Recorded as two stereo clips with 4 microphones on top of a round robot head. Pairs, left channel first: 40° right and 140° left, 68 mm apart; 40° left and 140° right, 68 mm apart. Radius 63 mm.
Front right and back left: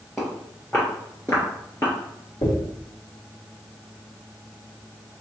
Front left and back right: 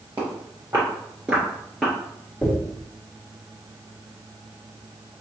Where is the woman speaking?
No woman speaking in this recording.